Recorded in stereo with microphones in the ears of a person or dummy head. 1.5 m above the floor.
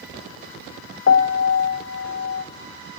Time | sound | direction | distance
1.1 | a piano | 45° left (ahead or behind) | 1.0 m